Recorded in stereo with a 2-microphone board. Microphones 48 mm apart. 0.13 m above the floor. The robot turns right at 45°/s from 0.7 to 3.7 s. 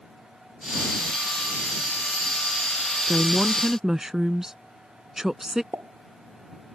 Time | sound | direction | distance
3.1 | a woman speaking | 20° right (ahead or behind) | ?
5.7 | a pop | 65° right (ahead or behind) | ?